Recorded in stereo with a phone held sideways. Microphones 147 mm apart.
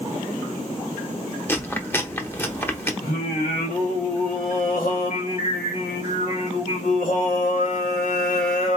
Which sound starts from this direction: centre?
Chewing, at 1.5 s.